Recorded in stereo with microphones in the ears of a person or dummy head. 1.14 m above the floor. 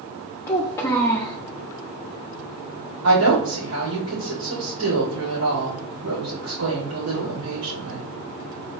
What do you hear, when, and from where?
0.5 s a child speaking: 15° left (ahead or behind), 0.7 m
3.0 s a woman speaking: 65° right (ahead or behind), 2 m